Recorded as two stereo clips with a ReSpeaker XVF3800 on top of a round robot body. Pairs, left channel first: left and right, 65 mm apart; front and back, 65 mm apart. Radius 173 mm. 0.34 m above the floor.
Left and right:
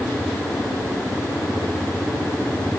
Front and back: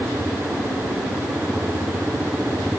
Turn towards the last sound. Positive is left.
No sound to turn to.